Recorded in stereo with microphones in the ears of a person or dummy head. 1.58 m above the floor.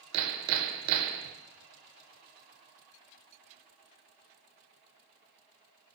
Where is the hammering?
75° right (ahead or behind), 0.5 m.